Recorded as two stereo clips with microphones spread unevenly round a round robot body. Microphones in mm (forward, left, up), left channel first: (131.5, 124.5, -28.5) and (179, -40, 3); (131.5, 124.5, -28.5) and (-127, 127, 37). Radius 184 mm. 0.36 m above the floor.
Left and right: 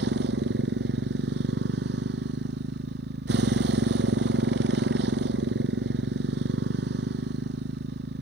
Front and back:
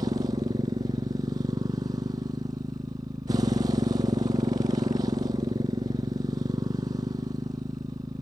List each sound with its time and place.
0.0 s a motorcycle: 100° right